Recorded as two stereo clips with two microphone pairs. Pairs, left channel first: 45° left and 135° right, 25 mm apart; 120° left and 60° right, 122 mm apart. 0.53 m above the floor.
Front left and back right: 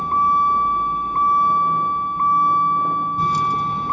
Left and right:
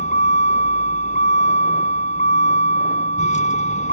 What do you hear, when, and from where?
0.0 s a vehicle: 120° left